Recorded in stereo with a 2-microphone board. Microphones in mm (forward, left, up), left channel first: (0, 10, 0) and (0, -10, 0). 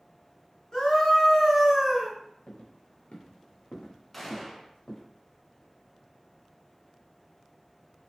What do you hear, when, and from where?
0.7 s a scream: 35° left (ahead or behind), 1.6 m; by 2.1 s 5° left (ahead or behind), 1.5 m
2.5 s footsteps: 65° left (ahead or behind), 1.1 m; by 5.0 s 35° left (ahead or behind), 1.3 m
4.1 s a gunshot: 10° left (ahead or behind), 0.7 m